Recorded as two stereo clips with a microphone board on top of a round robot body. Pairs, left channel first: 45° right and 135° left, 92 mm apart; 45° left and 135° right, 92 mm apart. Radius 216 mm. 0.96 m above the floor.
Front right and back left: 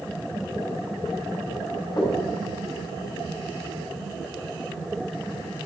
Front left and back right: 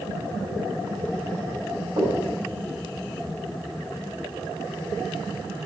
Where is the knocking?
95° right, 4 m.